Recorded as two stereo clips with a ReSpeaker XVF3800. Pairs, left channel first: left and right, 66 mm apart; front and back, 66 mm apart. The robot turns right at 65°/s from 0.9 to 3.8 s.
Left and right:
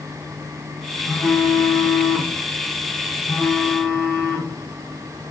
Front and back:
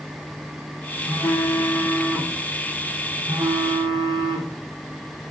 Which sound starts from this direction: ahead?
A phone buzzing, at 1.1 s.